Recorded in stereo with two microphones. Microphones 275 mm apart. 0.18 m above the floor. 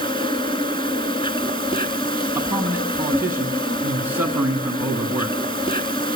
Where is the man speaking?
10° right (ahead or behind), 1.3 m.